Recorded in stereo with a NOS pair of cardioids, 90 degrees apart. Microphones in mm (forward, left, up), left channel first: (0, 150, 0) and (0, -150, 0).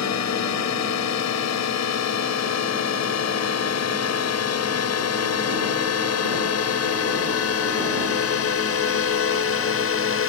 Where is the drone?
70° left; by 10.3 s 50° left.